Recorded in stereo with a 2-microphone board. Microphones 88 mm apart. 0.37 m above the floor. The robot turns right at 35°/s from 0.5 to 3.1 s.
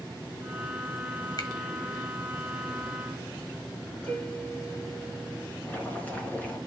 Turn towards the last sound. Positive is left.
turn(degrees=20)  # may be behind; listen again after turning